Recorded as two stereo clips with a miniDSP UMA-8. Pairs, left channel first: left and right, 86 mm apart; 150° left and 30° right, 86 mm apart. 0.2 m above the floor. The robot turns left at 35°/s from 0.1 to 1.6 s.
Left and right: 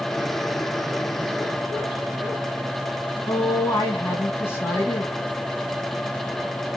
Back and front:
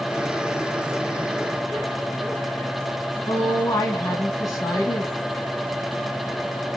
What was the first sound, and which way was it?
A woman speaking, 140° left.